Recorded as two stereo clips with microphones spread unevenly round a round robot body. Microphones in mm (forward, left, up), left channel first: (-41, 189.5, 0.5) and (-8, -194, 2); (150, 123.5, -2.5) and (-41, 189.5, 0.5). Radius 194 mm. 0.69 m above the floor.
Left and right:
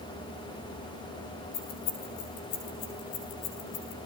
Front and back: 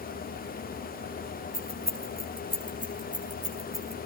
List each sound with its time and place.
1.5 s keys jangling: 105° left, 6 m; by 4.0 s 85° left, 5.5 m